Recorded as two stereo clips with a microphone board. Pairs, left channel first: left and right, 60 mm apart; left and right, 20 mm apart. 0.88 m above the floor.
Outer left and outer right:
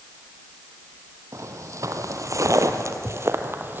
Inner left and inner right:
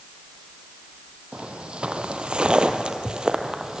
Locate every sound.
1.3 s footsteps: 55° right (ahead or behind), 1.9 m; by 3.8 s 35° right (ahead or behind), 1.6 m